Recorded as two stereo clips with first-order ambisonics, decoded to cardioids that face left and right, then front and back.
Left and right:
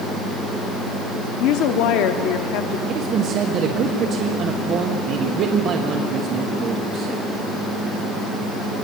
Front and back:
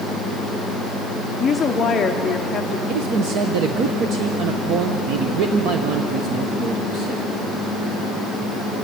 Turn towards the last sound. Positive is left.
turn(degrees=-145)